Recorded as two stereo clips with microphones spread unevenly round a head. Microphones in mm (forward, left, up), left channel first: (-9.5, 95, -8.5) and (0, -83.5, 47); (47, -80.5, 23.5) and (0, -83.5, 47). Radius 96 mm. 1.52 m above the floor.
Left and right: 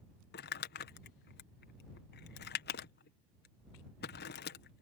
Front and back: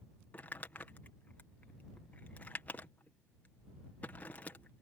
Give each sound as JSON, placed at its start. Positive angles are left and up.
{"t": 0.3, "sound": "crumpling", "azimuth_deg": 65}